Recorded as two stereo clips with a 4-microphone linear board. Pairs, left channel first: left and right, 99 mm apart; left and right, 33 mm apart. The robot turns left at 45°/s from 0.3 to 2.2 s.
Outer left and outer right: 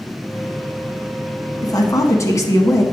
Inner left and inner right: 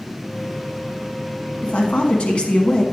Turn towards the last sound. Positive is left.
turn(degrees=35)  # may be behind; listen again after turning